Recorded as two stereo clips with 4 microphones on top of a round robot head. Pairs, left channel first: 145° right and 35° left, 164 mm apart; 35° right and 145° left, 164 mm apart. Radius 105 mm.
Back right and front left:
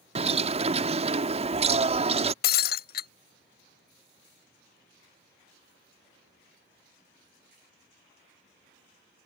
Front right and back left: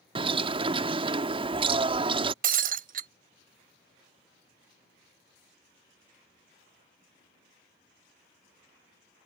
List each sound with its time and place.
0.1 s a bird: 85° left
2.4 s breaking glass: 175° right